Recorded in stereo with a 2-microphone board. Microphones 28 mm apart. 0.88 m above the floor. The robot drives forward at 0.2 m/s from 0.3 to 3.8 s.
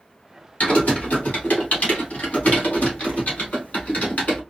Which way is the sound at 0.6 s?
65° left (ahead or behind).